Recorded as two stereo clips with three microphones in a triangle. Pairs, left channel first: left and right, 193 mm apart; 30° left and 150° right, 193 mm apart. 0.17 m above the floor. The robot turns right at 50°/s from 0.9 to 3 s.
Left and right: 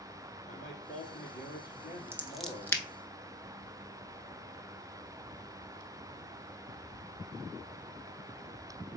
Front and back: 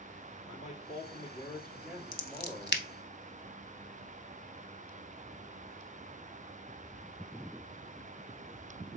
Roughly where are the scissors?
Ahead.